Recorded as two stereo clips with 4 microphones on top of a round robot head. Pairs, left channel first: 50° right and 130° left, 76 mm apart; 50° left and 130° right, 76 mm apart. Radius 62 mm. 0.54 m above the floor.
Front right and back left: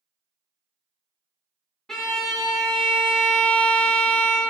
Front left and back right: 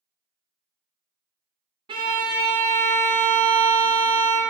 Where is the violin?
135° right, 0.5 m.